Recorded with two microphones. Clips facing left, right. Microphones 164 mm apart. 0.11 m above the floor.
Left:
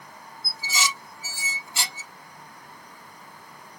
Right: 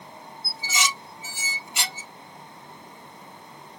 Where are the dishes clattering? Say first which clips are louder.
Even; 20° right (ahead or behind), 1.9 m.